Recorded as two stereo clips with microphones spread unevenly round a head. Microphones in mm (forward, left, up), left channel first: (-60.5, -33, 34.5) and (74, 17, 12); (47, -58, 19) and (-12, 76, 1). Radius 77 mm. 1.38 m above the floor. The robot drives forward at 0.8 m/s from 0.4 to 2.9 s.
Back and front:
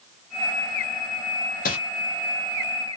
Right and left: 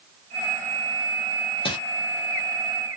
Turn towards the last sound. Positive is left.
turn(degrees=-150)